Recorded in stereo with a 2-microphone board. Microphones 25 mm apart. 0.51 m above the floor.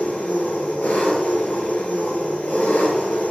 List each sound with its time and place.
0.0 s an engine running: 85° left, 5 m